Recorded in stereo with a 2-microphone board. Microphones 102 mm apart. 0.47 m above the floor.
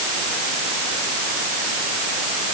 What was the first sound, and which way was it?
Only background noise.